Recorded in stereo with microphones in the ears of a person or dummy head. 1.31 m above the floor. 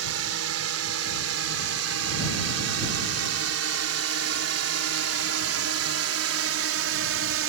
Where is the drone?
80° right; by 7.5 s 65° right (ahead or behind).